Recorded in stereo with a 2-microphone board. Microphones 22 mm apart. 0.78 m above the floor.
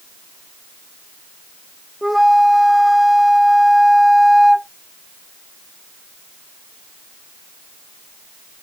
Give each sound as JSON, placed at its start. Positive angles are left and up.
{"t": 2.0, "sound": "a flute", "side_deg": -5}